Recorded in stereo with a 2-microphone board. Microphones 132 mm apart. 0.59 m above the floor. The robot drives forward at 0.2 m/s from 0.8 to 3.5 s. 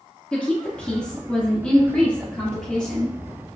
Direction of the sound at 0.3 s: 10° left (ahead or behind).